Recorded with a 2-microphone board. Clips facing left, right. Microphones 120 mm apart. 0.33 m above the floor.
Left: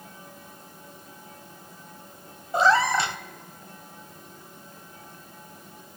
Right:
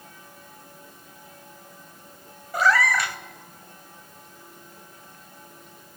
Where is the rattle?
I don't hear a rattle.